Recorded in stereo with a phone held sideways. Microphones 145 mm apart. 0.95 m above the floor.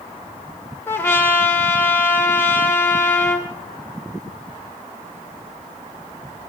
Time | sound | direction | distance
0.9 | a trumpet | 15° left (ahead or behind) | 2.0 m